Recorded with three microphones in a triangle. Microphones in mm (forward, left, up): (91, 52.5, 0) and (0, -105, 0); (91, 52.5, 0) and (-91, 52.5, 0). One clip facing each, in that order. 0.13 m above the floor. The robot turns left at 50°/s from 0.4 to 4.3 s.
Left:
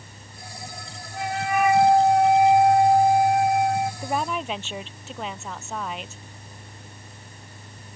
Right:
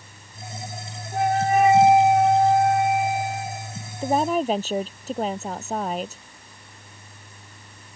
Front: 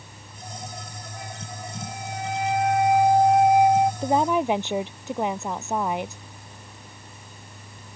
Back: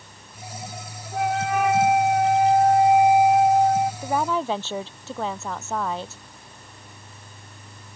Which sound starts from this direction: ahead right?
A woman speaking, at 4.0 s.